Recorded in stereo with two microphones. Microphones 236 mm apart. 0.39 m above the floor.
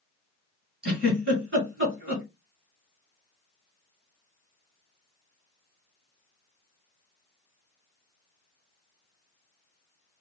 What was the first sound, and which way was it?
A giggle, 55° right (ahead or behind).